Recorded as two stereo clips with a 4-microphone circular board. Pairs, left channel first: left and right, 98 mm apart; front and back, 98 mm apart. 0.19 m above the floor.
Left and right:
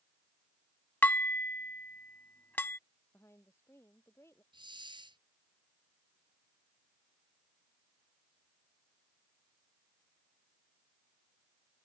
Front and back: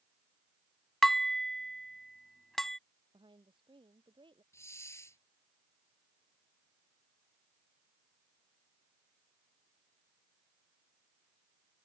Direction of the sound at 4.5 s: 60° right.